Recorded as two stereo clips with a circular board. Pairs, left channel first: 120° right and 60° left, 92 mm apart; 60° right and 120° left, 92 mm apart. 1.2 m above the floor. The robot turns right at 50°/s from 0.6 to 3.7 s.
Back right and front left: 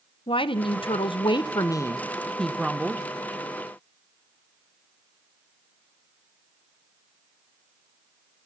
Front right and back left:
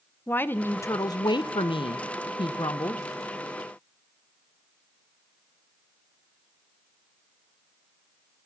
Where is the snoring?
I don't hear snoring.